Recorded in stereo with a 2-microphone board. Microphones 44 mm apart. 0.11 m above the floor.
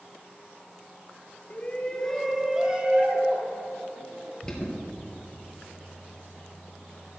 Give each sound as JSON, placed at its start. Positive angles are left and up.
{"t": 1.5, "sound": "a shout", "side_deg": 35, "distance_m": 2.0}
{"t": 4.4, "sound": "an alarm", "side_deg": 15, "distance_m": 3.0}